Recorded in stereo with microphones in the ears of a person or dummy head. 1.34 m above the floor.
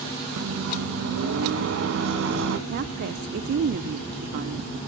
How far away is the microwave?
About 1.2 m.